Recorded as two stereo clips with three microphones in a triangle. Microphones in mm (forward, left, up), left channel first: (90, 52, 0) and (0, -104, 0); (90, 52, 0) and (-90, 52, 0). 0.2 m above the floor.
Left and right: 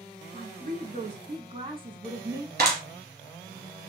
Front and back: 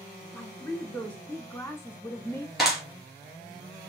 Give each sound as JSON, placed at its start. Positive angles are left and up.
{"t": 0.3, "sound": "a woman speaking", "azimuth_deg": -85, "distance_m": 2.0}
{"t": 2.6, "sound": "a clap", "azimuth_deg": -90, "distance_m": 3.0}